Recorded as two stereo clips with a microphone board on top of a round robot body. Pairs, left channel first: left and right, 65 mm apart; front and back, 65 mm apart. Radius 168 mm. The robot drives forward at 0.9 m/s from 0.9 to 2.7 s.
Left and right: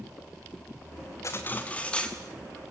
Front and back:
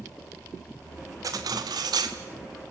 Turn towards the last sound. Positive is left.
turn(degrees=170)